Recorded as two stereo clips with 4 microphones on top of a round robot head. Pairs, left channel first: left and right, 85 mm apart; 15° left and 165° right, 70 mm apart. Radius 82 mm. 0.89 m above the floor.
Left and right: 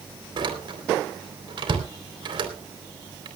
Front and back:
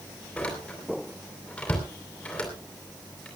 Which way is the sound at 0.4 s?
60° right.